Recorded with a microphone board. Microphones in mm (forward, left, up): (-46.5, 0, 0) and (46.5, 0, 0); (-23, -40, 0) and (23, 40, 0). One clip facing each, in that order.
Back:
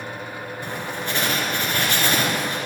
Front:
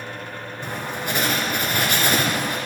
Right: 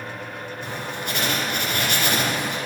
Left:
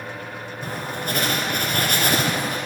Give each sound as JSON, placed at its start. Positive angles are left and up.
{"t": 0.6, "sound": "writing", "azimuth_deg": 70, "distance_m": 2.0}